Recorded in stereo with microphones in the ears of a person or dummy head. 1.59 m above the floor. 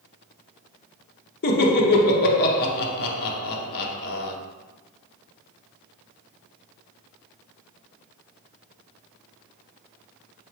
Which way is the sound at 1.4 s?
55° left (ahead or behind).